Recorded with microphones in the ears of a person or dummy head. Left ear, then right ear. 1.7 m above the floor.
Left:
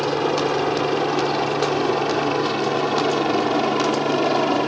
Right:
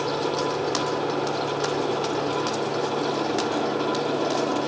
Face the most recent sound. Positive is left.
turn(degrees=75)  # may be behind; listen again after turning